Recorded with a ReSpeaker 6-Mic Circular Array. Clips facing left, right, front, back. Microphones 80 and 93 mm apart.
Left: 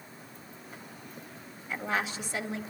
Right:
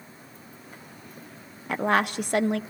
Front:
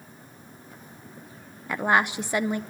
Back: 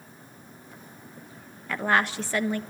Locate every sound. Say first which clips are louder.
1.7 s a woman speaking: right 8 dB, front 2 dB; 70° right, 1.0 m